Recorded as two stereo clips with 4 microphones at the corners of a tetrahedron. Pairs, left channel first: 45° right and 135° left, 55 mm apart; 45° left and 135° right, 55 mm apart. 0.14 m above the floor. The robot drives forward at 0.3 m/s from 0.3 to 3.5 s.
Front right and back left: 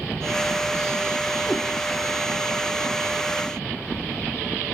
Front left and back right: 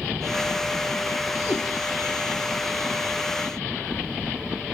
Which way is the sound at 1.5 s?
60° left.